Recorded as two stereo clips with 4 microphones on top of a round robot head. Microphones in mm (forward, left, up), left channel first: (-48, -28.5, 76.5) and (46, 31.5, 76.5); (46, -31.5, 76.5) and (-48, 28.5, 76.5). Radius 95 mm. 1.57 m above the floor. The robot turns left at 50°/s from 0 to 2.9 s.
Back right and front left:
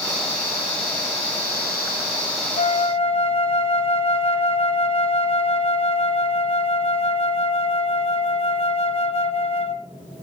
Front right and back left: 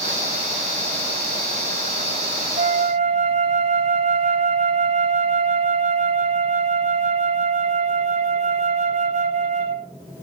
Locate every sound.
2.6 s a flute: 170° right, 0.9 m; by 9.9 s 175° left, 0.9 m